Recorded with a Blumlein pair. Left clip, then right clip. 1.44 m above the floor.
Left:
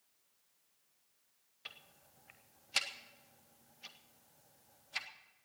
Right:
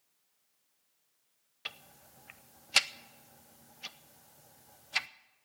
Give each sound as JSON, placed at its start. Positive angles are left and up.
{"t": 1.6, "sound": "ticking", "azimuth_deg": -25, "distance_m": 0.5}